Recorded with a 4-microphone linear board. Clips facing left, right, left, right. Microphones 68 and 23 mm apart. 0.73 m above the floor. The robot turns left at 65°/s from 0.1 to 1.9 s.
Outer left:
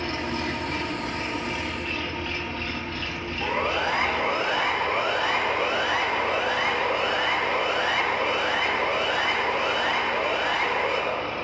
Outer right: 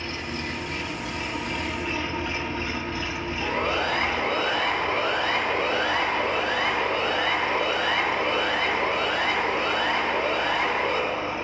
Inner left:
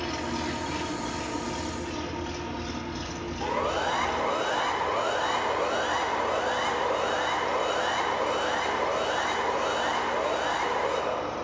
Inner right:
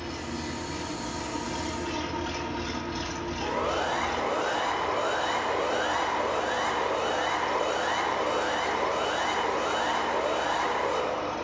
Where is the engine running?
105° left, 1.4 m; by 11.4 s 15° right, 1.4 m.